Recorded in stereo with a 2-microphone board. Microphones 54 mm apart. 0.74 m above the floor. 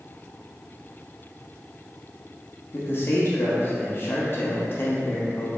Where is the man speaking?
50° left (ahead or behind), 0.9 m.